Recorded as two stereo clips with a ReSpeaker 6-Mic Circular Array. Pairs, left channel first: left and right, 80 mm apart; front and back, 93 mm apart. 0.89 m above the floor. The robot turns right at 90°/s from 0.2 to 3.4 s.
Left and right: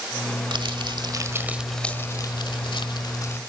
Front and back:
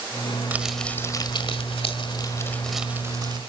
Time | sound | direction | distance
0.5 | crumpling | 110° right | 1.6 m